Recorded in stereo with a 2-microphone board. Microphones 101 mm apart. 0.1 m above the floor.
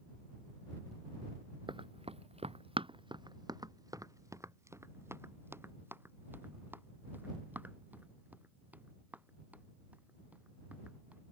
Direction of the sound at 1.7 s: 50° right (ahead or behind).